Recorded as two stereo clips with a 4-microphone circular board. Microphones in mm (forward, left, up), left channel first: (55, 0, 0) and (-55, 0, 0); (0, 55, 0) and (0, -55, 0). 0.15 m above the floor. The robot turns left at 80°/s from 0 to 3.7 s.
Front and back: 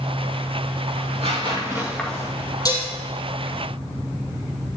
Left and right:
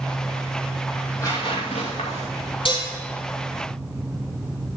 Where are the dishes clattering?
55° left, 3 m; by 2.9 s 35° left, 3 m.